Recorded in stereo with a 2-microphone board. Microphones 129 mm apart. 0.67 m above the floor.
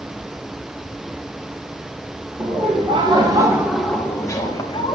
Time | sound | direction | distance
2.4 | laughter | 45° right (ahead or behind) | 1.7 m